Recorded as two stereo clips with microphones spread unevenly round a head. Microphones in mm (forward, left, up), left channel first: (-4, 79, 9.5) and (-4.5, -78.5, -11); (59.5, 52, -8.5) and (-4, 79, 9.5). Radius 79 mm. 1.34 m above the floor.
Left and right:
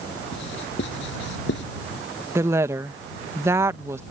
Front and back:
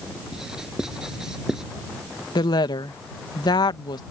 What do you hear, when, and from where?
0.3 s writing: 80° left
2.4 s a woman speaking: 15° right